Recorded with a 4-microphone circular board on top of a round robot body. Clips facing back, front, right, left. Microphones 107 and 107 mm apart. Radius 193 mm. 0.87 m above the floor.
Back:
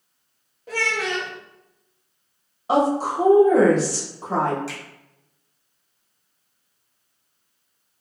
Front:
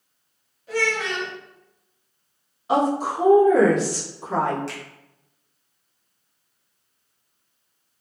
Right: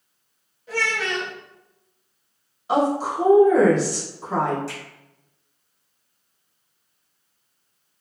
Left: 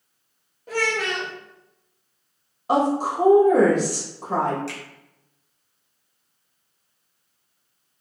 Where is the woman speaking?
130° left, 1.7 m.